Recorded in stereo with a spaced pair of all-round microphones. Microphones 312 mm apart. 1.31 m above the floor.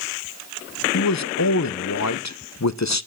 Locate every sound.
0.9 s a man speaking: 60° left (ahead or behind), 0.9 m